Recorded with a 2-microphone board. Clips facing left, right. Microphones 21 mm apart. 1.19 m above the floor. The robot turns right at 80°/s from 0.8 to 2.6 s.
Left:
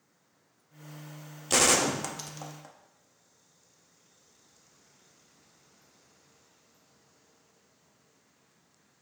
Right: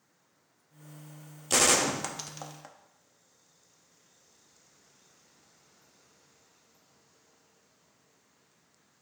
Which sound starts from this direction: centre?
A gunshot, at 1.5 s.